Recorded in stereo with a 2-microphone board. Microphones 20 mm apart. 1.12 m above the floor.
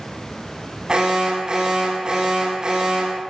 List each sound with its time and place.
0.9 s an alarm: 45° right (ahead or behind), 9.5 m